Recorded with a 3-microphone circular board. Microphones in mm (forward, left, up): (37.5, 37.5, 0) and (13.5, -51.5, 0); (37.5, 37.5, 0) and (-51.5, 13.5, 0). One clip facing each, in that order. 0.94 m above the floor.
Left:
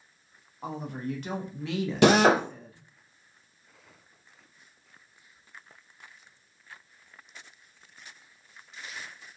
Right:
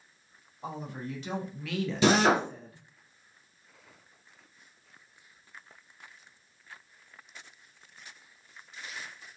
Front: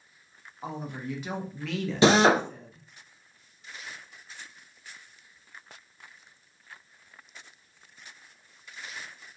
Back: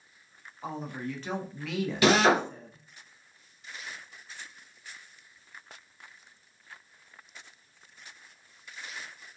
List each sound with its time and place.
0.6 s a woman speaking: 85° left, 1.1 m; by 2.9 s 125° right, 0.8 m
2.0 s a drill: 75° left, 0.6 m